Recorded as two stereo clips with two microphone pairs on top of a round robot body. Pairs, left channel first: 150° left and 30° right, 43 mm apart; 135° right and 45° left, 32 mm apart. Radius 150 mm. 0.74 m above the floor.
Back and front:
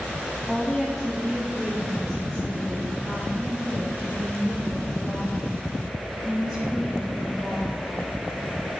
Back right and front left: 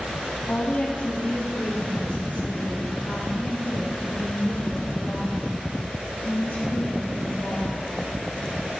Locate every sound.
0.5 s a woman speaking: 120° right, 1.6 m; by 8.1 s 135° right, 5.5 m